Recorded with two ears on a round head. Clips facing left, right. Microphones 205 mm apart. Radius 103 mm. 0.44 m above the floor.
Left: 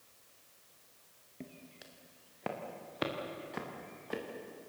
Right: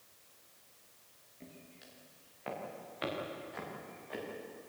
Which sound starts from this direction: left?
Footsteps, at 1.4 s.